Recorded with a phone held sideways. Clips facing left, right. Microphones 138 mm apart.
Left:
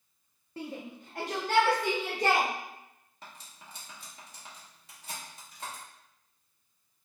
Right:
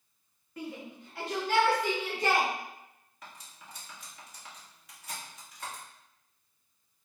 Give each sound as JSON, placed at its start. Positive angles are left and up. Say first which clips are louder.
{"t": 0.6, "sound": "a shout", "louder": "left 1 dB", "side_deg": 30, "distance_m": 0.6}
{"t": 3.2, "sound": "cutlery clinking", "louder": "even", "side_deg": 30, "distance_m": 1.2}